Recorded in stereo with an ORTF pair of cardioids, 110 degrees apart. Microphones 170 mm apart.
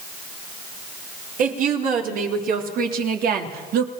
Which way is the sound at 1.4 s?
50° right.